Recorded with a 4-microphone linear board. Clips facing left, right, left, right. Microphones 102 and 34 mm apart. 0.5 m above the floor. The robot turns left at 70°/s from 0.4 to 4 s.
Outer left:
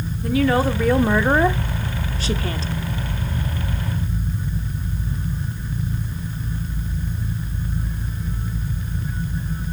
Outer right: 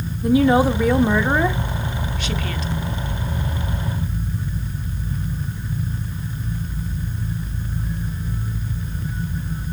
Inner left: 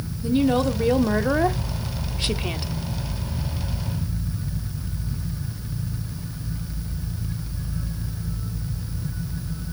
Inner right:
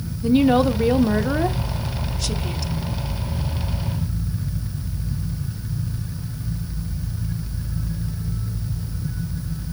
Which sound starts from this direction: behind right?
A woman speaking, at 0.2 s.